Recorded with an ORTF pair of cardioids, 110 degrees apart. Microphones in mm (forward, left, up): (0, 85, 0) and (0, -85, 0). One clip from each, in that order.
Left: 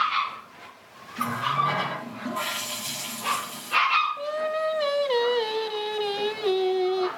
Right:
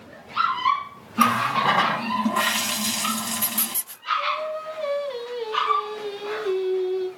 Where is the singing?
60° left, 0.9 m.